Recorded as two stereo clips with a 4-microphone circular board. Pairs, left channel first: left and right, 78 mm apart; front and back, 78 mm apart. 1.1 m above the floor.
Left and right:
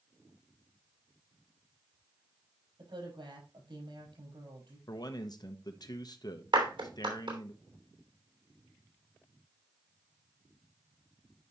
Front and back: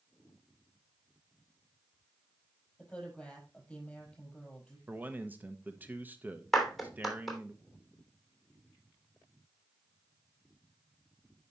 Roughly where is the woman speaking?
Right.